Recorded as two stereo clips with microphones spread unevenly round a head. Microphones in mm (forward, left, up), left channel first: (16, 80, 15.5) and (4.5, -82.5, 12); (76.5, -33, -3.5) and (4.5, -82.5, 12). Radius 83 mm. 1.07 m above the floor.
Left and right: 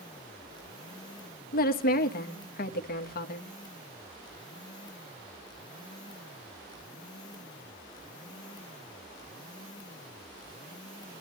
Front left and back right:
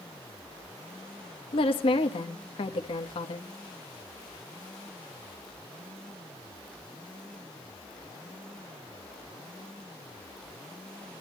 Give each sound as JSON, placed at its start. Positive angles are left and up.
{"t": 1.5, "sound": "a woman speaking", "azimuth_deg": 50, "distance_m": 1.4}